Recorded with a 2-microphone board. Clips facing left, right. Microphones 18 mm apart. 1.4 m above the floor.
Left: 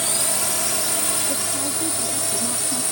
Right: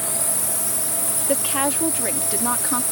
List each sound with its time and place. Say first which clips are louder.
0.0 s a drone: left 4 dB; 40° left (ahead or behind); by 2.9 s 30° left (ahead or behind)
1.3 s a woman speaking: right 4 dB; 75° right (ahead or behind)